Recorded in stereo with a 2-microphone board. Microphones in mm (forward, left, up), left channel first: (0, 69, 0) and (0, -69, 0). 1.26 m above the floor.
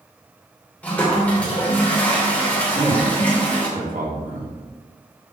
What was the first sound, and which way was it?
A toilet flushing, 10° left (ahead or behind).